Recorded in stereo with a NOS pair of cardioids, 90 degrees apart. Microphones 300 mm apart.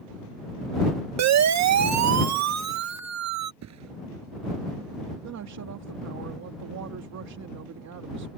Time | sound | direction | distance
1.2 | a siren | 65° right | ?
3.6 | a thud | 65° right | ?
5.2 | a woman speaking | 65° right | ?